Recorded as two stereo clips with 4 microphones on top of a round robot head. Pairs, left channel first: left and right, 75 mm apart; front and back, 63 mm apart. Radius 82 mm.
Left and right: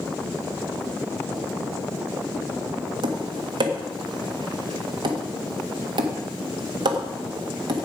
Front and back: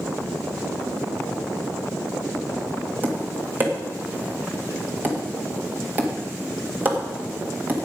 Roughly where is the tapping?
Behind right.